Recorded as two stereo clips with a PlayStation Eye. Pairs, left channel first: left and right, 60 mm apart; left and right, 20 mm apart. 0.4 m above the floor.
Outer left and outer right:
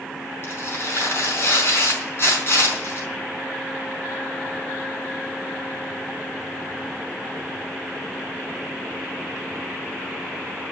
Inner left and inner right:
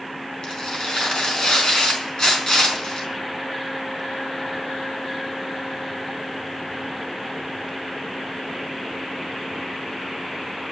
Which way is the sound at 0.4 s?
50° left (ahead or behind).